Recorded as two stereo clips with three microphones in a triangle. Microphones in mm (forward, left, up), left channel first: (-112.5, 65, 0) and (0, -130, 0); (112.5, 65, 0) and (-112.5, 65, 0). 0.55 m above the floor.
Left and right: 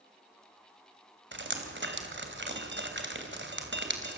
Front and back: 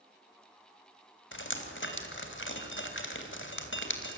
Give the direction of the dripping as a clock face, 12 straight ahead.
1 o'clock.